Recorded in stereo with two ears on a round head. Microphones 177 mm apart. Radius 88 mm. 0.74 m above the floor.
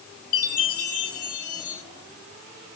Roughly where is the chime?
Left.